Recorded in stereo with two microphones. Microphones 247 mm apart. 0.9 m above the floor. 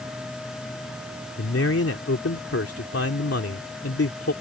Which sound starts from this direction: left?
A man speaking, at 1.4 s.